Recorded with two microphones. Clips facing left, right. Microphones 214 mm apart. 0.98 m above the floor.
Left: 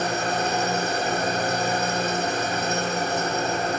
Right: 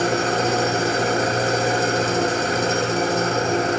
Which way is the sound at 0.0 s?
85° right.